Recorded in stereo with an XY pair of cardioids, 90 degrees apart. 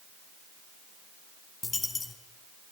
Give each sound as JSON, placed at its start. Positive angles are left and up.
{"t": 1.6, "sound": "a dropped coin", "azimuth_deg": 35, "distance_m": 2.5}